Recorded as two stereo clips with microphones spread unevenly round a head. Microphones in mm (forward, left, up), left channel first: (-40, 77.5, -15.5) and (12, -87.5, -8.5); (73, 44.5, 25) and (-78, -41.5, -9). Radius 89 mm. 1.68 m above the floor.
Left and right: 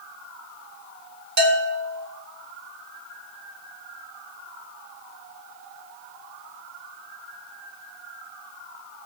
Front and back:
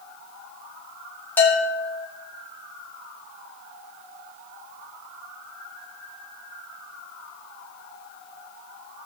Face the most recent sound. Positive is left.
turn(degrees=-45)